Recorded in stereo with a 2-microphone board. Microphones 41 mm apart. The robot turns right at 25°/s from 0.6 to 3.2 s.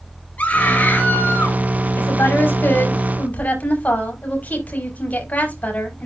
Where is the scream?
40° left (ahead or behind), 5 m; by 1.6 s 65° left (ahead or behind), 5 m.